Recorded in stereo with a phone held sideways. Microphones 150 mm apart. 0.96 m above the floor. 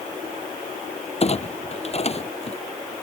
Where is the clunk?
45° left (ahead or behind).